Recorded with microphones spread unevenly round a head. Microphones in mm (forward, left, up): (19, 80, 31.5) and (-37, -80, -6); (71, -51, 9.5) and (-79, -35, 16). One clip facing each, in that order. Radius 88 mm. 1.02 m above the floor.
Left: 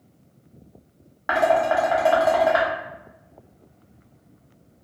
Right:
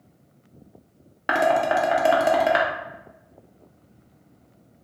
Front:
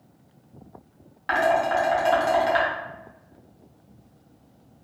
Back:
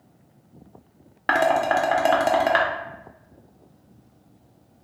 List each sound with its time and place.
1.3 s dishes clattering: 165° right, 0.6 m